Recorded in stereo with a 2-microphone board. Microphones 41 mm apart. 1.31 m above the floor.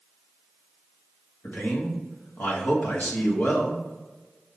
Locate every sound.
1.4 s a man speaking: 45° left (ahead or behind), 1.6 m